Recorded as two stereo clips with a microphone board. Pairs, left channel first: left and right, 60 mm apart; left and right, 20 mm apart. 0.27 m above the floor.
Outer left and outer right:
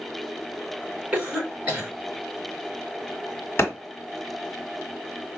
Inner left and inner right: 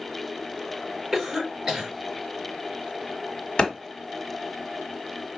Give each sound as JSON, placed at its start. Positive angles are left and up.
{"t": 1.1, "sound": "a cough", "side_deg": -20, "distance_m": 2.5}
{"t": 3.6, "sound": "a clap", "side_deg": 45, "distance_m": 1.6}